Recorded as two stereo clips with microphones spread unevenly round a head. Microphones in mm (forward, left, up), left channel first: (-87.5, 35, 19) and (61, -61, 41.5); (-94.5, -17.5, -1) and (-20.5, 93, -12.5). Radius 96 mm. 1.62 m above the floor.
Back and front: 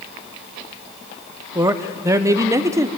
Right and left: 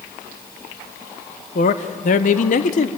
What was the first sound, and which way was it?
A man speaking, 100° right.